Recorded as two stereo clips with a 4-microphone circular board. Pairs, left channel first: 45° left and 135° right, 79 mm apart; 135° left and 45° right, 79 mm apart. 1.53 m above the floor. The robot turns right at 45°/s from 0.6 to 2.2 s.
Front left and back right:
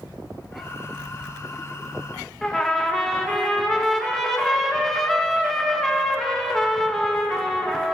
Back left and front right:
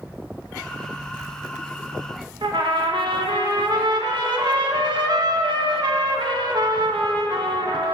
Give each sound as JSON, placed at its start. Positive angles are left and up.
{"t": 2.4, "sound": "a trumpet", "azimuth_deg": -40, "distance_m": 2.0}